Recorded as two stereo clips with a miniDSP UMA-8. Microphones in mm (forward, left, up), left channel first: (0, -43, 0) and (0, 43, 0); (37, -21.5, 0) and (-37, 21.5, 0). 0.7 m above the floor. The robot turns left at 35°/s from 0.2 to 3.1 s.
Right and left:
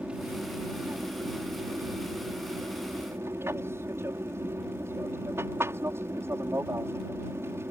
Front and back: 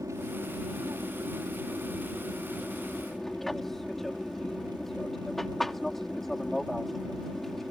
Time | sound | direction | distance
0.0 | an aircraft | 160° left | ?